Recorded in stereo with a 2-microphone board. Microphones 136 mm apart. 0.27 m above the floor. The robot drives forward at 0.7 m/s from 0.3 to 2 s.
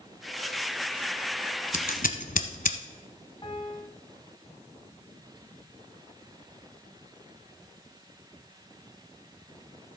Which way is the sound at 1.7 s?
75° left (ahead or behind).